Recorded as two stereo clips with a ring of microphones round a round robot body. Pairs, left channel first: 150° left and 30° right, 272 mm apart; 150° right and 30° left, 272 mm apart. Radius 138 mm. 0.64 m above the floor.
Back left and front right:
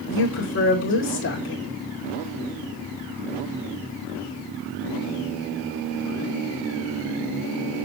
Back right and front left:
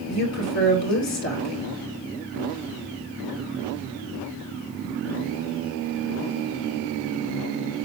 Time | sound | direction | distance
0.1 | a woman speaking | 170° right | 2 m